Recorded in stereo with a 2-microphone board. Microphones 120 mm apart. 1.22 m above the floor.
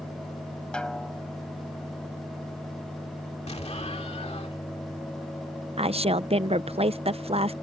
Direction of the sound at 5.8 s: 55° right (ahead or behind).